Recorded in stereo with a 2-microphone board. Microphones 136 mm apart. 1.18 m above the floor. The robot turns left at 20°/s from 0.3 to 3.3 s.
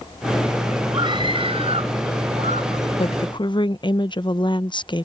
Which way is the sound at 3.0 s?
45° left (ahead or behind).